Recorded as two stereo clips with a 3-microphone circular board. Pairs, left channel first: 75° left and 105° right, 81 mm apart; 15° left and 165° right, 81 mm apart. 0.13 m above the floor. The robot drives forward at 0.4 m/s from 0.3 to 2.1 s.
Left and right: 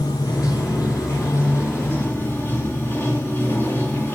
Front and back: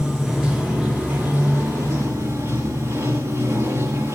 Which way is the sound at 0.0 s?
115° left.